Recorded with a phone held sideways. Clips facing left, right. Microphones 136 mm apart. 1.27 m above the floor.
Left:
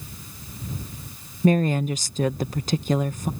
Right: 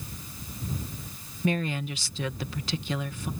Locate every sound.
1.4 s a woman speaking: 45° left (ahead or behind)